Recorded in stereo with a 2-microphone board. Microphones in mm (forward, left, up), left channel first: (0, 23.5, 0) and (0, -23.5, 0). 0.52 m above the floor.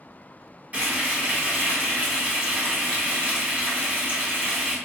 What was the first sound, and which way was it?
Frying, 30° right (ahead or behind).